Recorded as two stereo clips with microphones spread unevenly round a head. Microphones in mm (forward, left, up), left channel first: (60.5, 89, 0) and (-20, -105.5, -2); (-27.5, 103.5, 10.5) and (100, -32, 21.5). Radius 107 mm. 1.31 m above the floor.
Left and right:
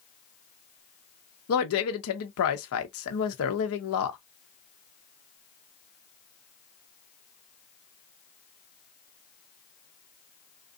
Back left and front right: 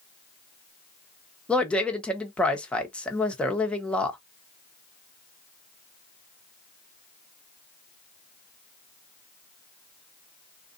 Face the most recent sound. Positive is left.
turn(degrees=50)